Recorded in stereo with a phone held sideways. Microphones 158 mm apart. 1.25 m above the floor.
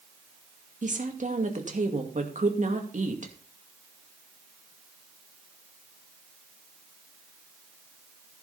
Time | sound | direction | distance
0.8 | a woman speaking | 50° right (ahead or behind) | 2.5 m